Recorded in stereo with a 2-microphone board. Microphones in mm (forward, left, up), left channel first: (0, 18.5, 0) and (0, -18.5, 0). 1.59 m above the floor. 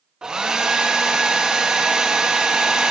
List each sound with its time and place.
0.2 s a hair dryer: 25° right (ahead or behind), 0.7 m